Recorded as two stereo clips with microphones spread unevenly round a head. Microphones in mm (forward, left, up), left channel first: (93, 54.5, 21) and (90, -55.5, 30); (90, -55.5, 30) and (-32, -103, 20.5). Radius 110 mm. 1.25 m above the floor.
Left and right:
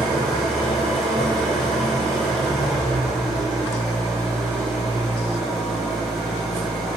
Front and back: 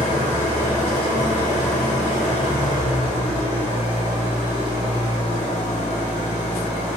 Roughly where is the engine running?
Ahead.